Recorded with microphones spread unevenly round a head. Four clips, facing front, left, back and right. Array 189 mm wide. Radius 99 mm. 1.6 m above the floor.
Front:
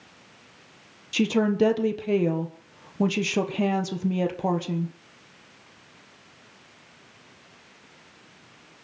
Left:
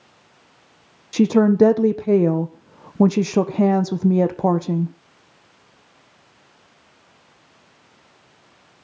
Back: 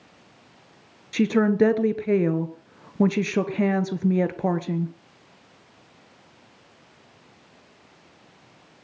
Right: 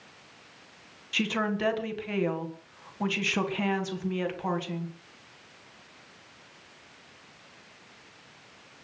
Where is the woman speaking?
105° left, 1.3 m.